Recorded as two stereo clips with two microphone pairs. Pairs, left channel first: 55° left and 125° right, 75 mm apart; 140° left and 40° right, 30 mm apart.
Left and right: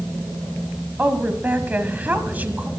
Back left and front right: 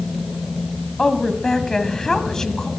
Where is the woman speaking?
170° right, 1.5 m.